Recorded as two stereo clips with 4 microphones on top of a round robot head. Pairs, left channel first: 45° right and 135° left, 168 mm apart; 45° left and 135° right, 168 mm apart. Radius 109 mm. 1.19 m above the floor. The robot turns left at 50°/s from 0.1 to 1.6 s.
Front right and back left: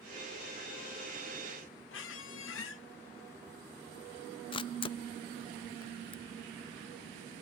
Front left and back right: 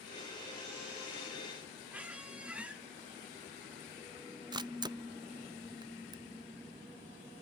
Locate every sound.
1.9 s a squeak: 55° right, 1.0 m
4.5 s a camera shutter: 85° right, 0.5 m